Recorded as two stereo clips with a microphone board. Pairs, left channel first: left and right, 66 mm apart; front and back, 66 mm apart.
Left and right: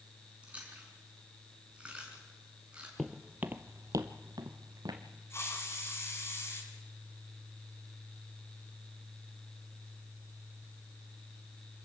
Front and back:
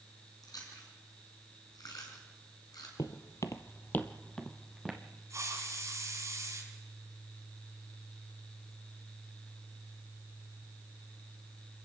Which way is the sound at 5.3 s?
140° left.